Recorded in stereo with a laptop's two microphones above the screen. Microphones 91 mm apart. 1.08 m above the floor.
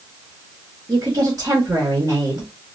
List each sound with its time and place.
0.9 s a woman speaking: 45° right (ahead or behind), 1.1 m